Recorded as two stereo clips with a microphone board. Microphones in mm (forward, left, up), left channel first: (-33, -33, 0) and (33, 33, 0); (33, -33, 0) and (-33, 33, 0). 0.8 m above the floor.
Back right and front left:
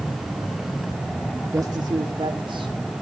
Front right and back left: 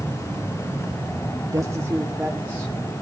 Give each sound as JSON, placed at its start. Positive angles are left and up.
{"t": 1.5, "sound": "a woman speaking", "azimuth_deg": 90, "distance_m": 1.2}